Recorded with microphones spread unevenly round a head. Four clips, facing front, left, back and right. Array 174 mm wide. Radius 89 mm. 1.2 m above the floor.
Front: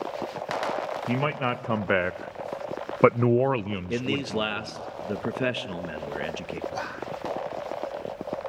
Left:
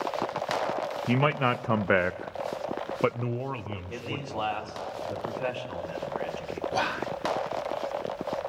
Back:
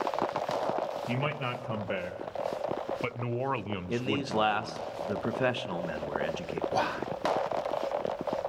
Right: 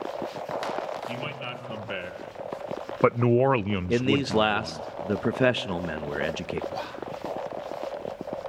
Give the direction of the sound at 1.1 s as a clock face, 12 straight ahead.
10 o'clock.